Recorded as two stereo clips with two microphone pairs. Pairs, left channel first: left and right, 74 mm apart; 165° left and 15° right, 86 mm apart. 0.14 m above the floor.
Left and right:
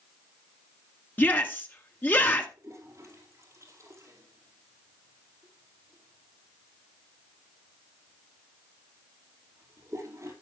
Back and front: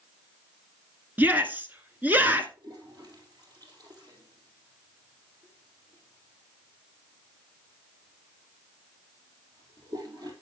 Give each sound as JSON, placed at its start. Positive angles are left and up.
{"t": 1.2, "sound": "a shout", "azimuth_deg": 45, "distance_m": 1.5}
{"t": 2.6, "sound": "a toilet flushing", "azimuth_deg": -45, "distance_m": 3.5}